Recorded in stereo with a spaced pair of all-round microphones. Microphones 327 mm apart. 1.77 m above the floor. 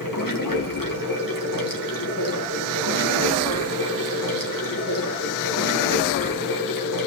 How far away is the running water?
About 2.0 m.